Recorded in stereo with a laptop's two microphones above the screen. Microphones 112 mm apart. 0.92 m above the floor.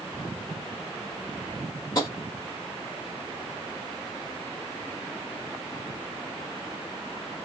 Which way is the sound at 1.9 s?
35° left (ahead or behind).